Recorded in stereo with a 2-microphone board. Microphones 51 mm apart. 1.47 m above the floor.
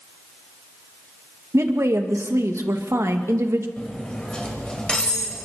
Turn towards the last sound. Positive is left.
turn(degrees=20)  # may be behind; listen again after turning